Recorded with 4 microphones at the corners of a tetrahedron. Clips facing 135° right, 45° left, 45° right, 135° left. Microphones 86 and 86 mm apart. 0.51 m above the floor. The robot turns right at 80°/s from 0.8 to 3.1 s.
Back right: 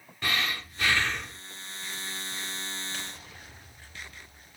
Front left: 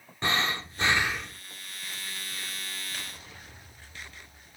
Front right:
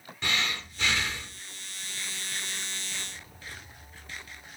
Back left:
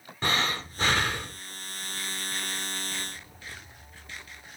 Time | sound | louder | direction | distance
0.2 | breathing | front left 2 dB, back left 4 dB | 100° left | 0.7 m